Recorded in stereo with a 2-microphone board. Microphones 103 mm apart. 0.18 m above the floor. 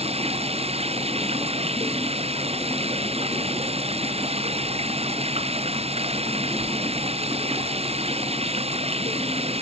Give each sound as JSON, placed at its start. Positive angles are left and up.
{"t": 0.0, "sound": "running water", "side_deg": -80}